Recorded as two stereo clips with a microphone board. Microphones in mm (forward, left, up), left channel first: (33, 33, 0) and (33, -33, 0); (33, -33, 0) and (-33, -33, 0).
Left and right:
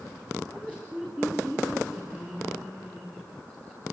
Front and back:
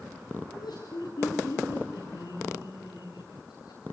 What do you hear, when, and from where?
0.5 s laughter: 15° right, 7 m